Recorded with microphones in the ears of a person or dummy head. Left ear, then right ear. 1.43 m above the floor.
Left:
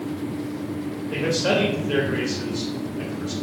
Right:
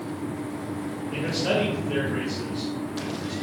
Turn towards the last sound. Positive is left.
turn(degrees=70)  # may be behind; listen again after turning